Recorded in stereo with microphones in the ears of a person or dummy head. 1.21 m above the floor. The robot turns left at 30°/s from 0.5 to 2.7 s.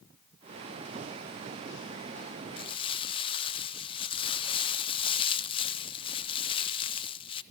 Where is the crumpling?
25° left (ahead or behind), 0.6 m.